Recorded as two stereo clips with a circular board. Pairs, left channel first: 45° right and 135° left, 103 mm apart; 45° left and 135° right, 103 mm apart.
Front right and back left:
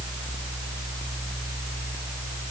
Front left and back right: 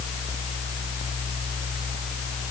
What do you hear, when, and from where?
Only background noise.